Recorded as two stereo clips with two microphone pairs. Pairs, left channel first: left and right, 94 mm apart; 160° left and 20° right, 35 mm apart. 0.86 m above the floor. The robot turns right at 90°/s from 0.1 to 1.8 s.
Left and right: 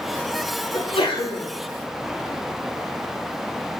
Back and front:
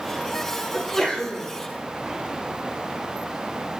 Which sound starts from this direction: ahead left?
A sneeze, at 0.7 s.